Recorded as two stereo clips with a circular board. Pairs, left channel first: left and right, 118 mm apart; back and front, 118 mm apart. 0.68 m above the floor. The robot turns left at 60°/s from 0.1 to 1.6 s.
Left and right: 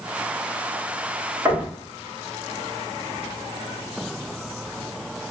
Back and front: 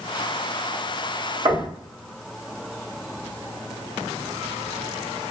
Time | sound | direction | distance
1.4 | knocking | 35° right | 1.4 m